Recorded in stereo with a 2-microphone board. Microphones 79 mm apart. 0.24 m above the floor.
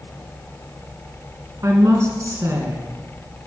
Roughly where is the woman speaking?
Right.